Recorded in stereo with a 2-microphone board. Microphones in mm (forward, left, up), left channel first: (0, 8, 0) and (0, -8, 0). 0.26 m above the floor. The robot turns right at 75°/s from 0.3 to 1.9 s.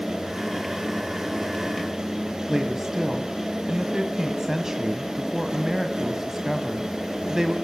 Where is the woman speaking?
30° right (ahead or behind), 1.6 m.